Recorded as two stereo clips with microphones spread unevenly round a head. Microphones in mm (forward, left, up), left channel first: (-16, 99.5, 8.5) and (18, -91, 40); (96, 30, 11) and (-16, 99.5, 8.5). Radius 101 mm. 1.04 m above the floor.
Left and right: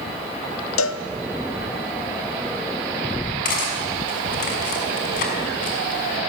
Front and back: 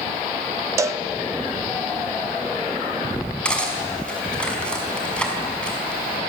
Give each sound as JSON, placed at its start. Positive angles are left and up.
{"t": 0.8, "sound": "a cowbell", "azimuth_deg": 85, "distance_m": 0.8}
{"t": 3.5, "sound": "cutlery clinking", "azimuth_deg": 50, "distance_m": 5.5}